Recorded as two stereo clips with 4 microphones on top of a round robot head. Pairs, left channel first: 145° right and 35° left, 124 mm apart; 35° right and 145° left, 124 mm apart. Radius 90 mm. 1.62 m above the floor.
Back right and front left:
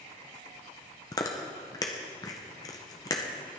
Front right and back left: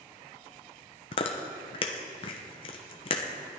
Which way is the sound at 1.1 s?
80° right.